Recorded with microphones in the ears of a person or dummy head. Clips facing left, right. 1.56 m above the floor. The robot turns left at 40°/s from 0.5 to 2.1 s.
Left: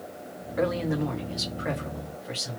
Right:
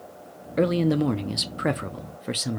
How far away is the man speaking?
About 0.6 m.